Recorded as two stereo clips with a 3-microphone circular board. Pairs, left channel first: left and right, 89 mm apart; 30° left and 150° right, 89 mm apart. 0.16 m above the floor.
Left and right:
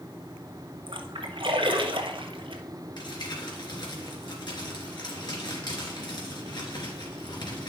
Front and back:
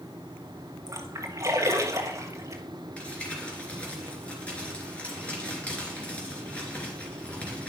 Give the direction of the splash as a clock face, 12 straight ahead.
3 o'clock.